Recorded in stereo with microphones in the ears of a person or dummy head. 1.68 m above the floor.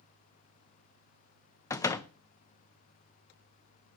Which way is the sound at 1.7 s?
15° left (ahead or behind).